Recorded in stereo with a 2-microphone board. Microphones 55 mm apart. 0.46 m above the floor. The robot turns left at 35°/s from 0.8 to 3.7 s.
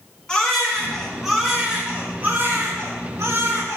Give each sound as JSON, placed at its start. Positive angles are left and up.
{"t": 0.3, "sound": "a baby crying", "azimuth_deg": 15, "distance_m": 4.0}